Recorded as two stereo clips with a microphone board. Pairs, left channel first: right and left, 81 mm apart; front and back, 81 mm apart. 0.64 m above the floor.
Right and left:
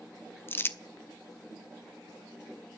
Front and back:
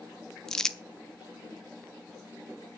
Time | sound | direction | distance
0.5 | crumpling | 75° right | 0.5 m